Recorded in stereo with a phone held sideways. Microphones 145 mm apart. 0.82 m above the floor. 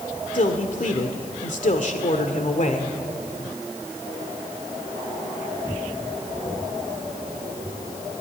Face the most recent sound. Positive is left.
turn(degrees=60)  # may be behind; listen again after turning